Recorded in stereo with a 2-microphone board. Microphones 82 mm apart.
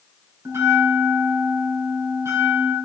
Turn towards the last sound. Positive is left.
turn(degrees=-35)  # may be behind; listen again after turning